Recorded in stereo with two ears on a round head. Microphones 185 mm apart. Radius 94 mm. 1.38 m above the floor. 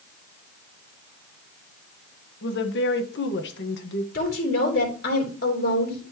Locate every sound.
2.4 s a woman speaking: 60° left (ahead or behind), 1.4 m
4.1 s a woman speaking: 45° left (ahead or behind), 3 m